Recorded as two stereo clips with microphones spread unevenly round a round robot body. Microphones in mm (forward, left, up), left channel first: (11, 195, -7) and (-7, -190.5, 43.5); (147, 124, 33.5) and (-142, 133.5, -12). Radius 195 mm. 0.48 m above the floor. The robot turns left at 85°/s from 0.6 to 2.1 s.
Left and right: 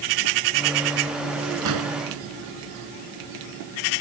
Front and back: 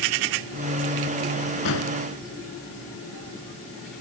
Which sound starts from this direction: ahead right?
An explosion, at 1.6 s.